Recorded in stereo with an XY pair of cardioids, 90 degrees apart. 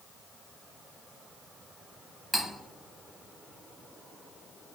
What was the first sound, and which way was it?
Cutlery clinking, straight ahead.